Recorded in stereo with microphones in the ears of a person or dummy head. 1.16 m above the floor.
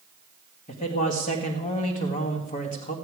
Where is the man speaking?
35° left (ahead or behind), 1.7 m.